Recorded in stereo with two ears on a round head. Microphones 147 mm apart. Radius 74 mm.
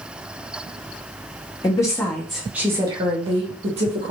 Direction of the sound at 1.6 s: 25° left (ahead or behind).